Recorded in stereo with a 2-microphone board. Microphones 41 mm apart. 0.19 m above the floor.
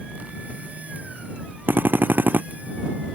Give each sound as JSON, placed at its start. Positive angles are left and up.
{"t": 1.7, "sound": "a drill", "side_deg": -65}